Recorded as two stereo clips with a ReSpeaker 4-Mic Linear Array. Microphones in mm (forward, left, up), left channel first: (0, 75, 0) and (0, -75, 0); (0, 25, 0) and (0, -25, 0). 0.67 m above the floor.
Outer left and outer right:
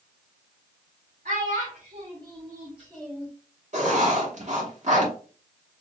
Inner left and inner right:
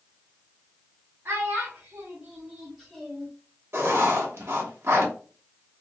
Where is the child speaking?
55° right (ahead or behind), 1.0 m; by 3.3 s 10° left (ahead or behind), 0.9 m.